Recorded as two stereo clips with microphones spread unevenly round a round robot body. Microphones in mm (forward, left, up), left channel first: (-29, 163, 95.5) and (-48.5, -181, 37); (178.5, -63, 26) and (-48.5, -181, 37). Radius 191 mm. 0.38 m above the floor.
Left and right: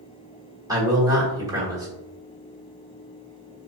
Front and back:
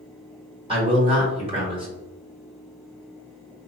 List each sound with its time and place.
0.7 s a man speaking: 115° right, 1.2 m